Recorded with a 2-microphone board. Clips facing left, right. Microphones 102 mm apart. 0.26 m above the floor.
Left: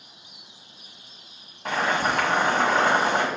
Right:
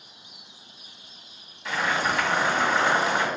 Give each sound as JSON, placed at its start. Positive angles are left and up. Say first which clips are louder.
{"t": 1.6, "sound": "boiling", "louder": "left 2 dB", "side_deg": 50, "distance_m": 2.0}